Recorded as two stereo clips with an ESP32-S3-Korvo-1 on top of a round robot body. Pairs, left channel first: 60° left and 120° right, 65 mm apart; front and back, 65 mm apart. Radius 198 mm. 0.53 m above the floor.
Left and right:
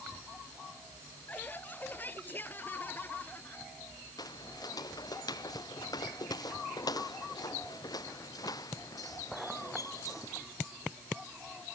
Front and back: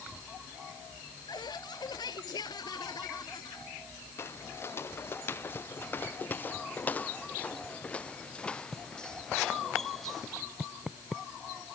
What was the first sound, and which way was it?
Laughter, 5° right.